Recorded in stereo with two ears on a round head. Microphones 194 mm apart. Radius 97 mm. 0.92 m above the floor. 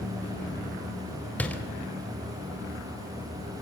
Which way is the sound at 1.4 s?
5° left (ahead or behind).